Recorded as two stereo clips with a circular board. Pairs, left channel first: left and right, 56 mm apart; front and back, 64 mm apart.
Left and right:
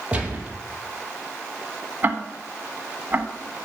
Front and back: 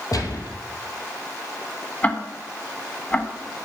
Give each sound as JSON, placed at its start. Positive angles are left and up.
{"t": 0.1, "sound": "a gunshot", "azimuth_deg": -25, "distance_m": 2.5}
{"t": 2.0, "sound": "ticking", "azimuth_deg": -50, "distance_m": 1.4}